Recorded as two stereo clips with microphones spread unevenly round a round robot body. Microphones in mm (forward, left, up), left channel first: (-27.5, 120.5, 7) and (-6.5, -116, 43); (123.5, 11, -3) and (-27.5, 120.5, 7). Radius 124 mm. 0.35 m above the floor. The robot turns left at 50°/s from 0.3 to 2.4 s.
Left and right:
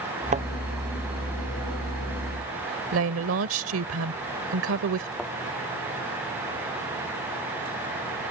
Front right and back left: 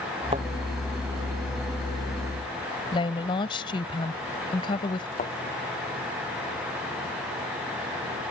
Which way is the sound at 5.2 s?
5° left.